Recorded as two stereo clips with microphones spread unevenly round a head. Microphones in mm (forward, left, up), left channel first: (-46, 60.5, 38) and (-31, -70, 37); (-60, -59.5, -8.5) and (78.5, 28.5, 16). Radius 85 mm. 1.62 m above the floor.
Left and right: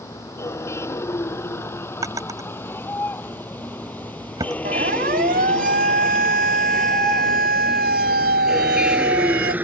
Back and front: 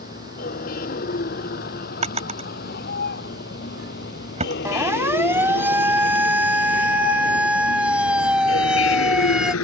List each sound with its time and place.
0.0 s a vehicle: 165° left; by 9.6 s 160° right
2.0 s a drawer: 10° right
4.7 s a siren: 45° right; by 9.5 s 55° right